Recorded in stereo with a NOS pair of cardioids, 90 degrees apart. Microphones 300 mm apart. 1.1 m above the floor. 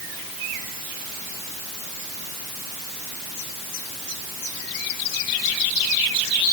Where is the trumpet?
I don't hear a trumpet.